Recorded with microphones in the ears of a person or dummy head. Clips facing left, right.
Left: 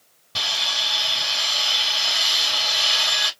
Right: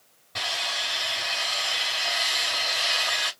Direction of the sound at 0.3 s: 45° left (ahead or behind).